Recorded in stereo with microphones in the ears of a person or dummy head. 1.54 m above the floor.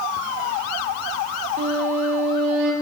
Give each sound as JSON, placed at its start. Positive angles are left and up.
{"t": 1.6, "sound": "a violin", "side_deg": -45, "distance_m": 1.7}